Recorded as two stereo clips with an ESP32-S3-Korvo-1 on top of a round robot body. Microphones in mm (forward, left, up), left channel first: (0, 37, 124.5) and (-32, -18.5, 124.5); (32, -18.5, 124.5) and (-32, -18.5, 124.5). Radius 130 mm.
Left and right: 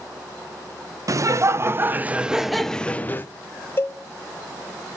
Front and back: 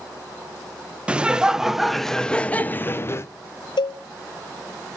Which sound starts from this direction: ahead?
A cowbell, at 3.8 s.